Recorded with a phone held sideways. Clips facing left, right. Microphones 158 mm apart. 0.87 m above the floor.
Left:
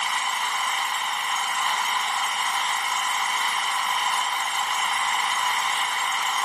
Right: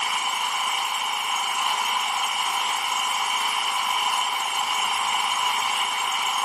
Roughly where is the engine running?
Centre.